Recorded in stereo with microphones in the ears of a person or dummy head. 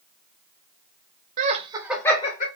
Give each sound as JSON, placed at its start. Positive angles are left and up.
{"t": 1.4, "sound": "laughter", "side_deg": -45, "distance_m": 0.8}